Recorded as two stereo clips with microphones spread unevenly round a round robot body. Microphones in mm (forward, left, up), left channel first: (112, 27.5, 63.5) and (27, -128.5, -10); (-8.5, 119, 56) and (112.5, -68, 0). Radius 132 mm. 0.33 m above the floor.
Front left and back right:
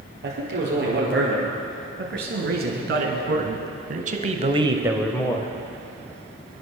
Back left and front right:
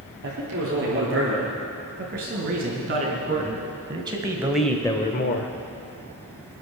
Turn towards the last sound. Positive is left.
turn(degrees=130)